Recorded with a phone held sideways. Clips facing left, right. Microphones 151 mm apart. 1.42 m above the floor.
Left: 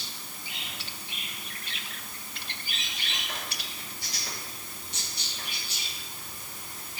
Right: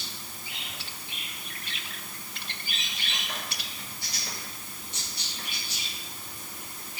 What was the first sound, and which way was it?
Only background noise.